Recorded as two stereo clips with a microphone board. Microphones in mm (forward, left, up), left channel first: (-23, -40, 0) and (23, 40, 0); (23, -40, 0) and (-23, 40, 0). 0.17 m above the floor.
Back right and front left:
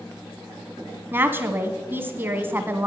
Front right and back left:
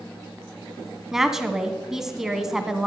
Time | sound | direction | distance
1.1 | a woman speaking | 40° left | 1.3 m